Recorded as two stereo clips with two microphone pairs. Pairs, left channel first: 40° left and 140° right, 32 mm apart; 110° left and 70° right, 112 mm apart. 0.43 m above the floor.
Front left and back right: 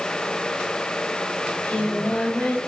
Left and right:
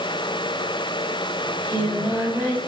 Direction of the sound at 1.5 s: Straight ahead.